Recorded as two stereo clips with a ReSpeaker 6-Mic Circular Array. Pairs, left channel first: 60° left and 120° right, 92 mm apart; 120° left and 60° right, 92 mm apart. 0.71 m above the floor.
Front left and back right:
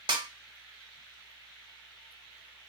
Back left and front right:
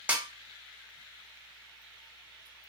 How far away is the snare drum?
About 0.7 m.